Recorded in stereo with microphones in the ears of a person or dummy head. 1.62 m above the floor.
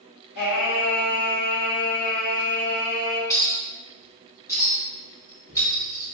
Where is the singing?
55° left (ahead or behind), 2.0 m.